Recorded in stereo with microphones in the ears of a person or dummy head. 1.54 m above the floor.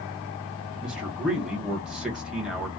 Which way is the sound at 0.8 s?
5° right (ahead or behind).